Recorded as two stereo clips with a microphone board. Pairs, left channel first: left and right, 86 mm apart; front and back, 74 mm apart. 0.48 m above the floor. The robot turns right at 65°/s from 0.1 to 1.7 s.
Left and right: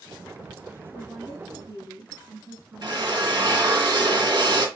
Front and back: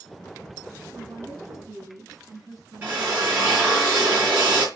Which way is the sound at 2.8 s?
120° right.